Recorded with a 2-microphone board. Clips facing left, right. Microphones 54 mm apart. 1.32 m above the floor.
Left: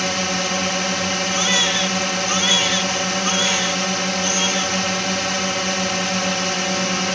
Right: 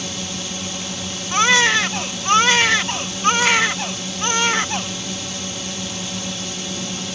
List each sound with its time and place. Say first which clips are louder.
0.0 s a drone: left 8 dB; 75° left (ahead or behind)
1.3 s a baby crying: right 9 dB; 70° right (ahead or behind)